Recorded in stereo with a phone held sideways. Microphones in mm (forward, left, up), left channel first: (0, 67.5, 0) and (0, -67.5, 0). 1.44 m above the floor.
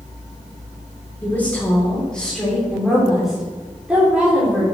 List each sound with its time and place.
1.2 s a woman speaking: 15° left (ahead or behind), 4 m; by 4.6 s 15° right (ahead or behind), 4 m